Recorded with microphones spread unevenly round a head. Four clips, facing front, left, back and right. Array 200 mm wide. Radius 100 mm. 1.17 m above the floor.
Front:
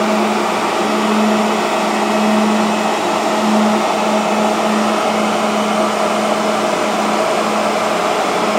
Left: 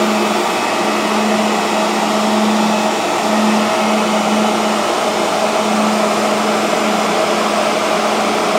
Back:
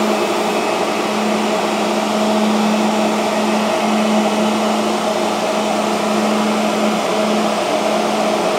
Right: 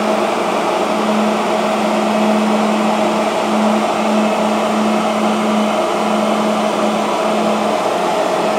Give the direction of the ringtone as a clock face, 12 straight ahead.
No ringtone in this recording.